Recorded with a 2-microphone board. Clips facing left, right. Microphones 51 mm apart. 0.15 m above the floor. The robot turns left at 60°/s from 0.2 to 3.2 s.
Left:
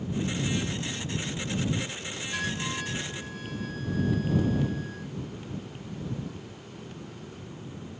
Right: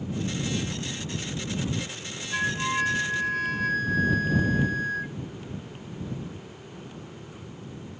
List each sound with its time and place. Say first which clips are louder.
2.3 s a flute: right 7 dB; 20° right; by 5.1 s 75° right